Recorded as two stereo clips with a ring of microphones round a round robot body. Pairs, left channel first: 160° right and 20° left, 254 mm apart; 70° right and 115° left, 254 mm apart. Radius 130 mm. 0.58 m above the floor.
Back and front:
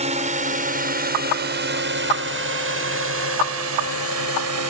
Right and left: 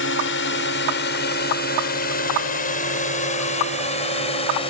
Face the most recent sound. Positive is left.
turn(degrees=0)